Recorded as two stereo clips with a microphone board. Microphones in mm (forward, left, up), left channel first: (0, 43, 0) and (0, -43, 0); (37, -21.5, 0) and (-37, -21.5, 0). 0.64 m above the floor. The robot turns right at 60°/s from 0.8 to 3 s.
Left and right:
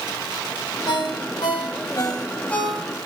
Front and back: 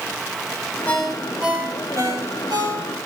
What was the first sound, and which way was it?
A ringtone, 70° left.